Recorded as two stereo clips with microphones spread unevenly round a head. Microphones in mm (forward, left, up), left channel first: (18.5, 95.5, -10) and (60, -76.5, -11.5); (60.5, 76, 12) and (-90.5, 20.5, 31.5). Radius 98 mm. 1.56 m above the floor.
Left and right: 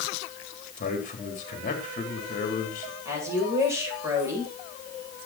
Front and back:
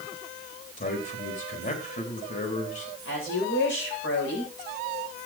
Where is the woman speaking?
Straight ahead, 8.5 m.